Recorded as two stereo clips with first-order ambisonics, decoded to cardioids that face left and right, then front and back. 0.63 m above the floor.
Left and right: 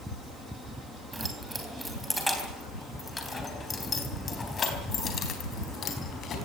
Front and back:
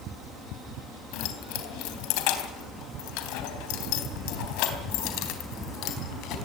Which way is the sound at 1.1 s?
10° right.